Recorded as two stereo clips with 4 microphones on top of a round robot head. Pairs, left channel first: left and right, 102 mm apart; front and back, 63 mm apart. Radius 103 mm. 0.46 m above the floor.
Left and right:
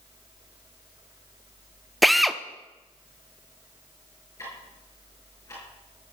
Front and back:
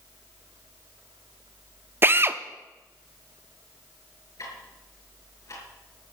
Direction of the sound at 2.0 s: Straight behind.